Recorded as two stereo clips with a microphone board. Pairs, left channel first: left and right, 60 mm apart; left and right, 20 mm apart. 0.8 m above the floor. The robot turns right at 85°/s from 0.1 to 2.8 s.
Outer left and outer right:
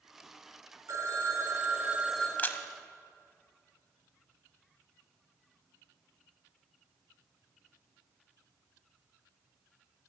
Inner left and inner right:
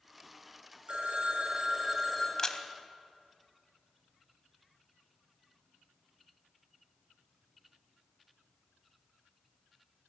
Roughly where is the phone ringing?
Behind right.